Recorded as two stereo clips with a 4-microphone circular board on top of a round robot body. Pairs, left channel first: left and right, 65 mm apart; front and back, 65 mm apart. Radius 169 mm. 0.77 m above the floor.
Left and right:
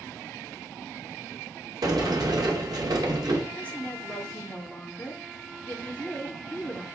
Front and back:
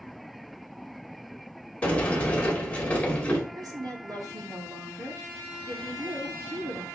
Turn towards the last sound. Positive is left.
turn(degrees=160)